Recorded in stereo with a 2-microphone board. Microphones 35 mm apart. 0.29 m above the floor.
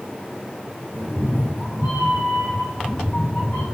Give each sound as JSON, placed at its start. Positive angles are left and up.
{"t": 0.9, "sound": "a cat meowing", "side_deg": 55, "distance_m": 3.5}